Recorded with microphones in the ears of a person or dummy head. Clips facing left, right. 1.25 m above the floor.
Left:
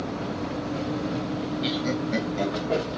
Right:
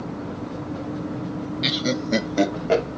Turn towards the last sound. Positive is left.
turn(degrees=-90)